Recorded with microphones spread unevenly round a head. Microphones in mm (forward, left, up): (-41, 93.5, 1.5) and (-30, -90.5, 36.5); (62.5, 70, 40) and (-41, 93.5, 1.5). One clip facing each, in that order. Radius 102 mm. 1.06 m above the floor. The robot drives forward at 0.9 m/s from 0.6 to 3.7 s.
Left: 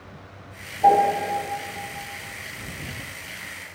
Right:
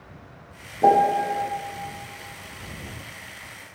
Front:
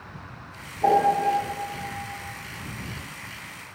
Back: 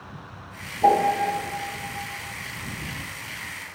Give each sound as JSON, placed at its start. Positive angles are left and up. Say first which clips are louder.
{"t": 0.8, "sound": "a piano", "louder": "even, even", "azimuth_deg": -120, "distance_m": 0.6}